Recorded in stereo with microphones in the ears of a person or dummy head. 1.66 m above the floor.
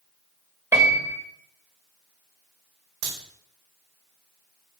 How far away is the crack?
About 5.5 m.